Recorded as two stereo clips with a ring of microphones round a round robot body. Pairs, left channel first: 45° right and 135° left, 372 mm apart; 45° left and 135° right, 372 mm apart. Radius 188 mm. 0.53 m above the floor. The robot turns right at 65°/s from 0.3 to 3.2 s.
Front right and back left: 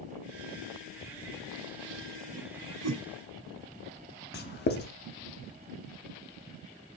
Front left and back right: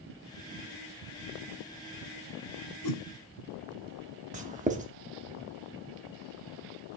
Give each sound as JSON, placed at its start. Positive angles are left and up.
{"t": 2.8, "sound": "a whoosh", "azimuth_deg": 80, "distance_m": 1.4}
{"t": 4.3, "sound": "writing", "azimuth_deg": -80, "distance_m": 1.0}